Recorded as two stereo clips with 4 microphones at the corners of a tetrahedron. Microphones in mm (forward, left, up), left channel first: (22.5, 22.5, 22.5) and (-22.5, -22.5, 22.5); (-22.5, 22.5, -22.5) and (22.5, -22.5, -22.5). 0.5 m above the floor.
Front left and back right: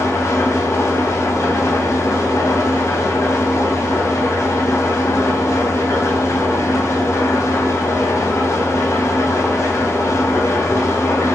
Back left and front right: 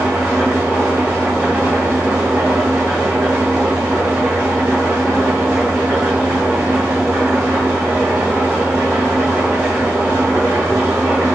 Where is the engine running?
25° left, 3 m.